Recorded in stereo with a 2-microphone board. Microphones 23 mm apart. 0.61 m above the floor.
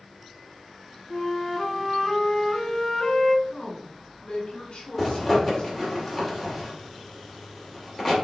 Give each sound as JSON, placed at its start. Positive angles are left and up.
{"t": 1.1, "sound": "a flute", "side_deg": 10, "distance_m": 1.3}
{"t": 3.5, "sound": "a woman speaking", "side_deg": 50, "distance_m": 2.5}
{"t": 5.0, "sound": "a zipper", "side_deg": -5, "distance_m": 2.5}